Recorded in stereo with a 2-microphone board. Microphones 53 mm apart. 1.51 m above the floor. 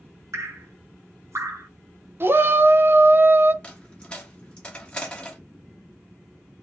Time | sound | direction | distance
0.3 | dripping | 70° right (ahead or behind) | 0.8 m
2.2 | a shout | 45° right (ahead or behind) | 0.5 m
3.6 | a dropped coin | 20° left (ahead or behind) | 0.9 m